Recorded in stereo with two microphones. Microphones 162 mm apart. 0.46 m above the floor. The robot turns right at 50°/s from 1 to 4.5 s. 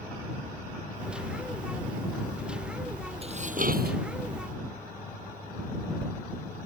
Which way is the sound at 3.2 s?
140° right.